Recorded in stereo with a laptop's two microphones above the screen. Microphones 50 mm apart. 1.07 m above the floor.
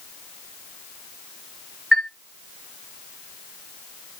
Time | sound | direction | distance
1.9 | a chime | 5° right (ahead or behind) | 0.7 m